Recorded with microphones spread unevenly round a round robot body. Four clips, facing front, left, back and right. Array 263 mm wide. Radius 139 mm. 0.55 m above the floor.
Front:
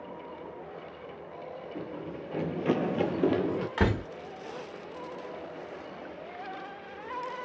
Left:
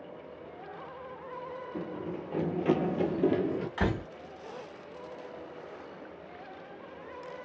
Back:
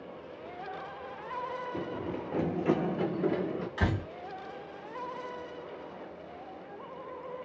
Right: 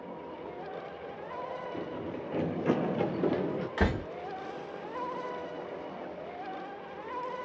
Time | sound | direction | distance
1.7 | running footsteps | straight behind | 0.7 m
3.8 | a door slam | 25° right | 1.1 m